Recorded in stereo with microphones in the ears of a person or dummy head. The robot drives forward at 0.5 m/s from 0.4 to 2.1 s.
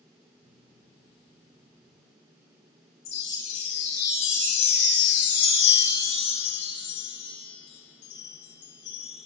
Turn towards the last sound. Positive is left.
turn(degrees=65)  # may be behind; listen again after turning